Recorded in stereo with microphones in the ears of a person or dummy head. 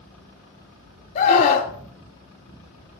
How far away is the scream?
About 2.5 m.